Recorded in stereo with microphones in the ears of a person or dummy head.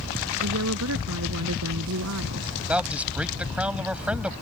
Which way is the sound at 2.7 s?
5° right (ahead or behind).